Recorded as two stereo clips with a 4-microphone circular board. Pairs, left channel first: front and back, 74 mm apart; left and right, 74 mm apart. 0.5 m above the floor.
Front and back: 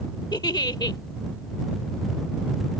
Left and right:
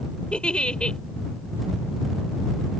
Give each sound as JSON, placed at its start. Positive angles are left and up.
{"t": 0.3, "sound": "a giggle", "azimuth_deg": 15}